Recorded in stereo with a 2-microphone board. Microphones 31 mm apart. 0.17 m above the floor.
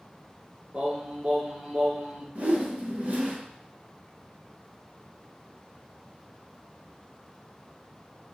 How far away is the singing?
About 1.9 m.